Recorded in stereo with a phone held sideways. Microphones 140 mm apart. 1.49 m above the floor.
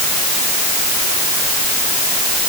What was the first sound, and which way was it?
Only background noise.